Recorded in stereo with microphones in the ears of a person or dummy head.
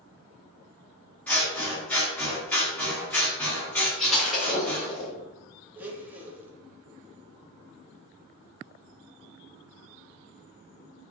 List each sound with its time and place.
1.3 s scissors: 15° left (ahead or behind), 1.1 m
4.0 s breaking glass: 5° left (ahead or behind), 0.9 m
5.8 s a blender: 15° right (ahead or behind), 0.7 m